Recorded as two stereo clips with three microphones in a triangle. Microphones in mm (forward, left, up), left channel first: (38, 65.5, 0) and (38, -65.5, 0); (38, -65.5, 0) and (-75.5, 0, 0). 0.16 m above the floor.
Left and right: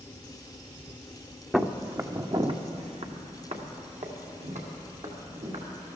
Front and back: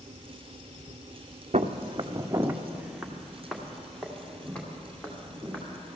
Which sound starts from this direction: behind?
Footsteps, at 1.5 s.